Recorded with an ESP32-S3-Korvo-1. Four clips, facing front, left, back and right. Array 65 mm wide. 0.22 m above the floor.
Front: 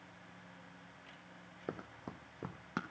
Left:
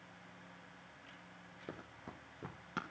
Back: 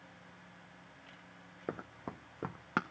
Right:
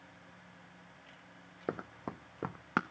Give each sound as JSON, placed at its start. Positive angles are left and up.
{"t": 1.7, "sound": "running footsteps", "azimuth_deg": -100, "distance_m": 0.6}